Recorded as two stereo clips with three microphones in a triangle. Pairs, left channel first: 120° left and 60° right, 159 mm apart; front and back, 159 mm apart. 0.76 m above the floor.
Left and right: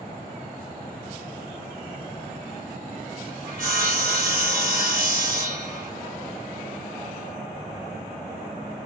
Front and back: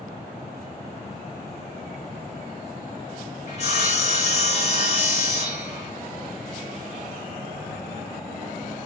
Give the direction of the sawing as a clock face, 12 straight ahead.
1 o'clock.